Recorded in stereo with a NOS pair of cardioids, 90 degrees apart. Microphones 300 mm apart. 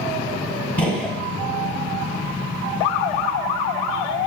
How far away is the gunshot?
About 0.6 m.